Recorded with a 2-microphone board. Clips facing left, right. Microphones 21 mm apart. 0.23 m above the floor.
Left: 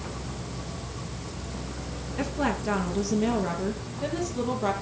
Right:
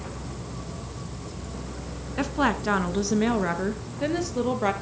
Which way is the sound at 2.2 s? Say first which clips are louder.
Right 4 dB; 45° right (ahead or behind).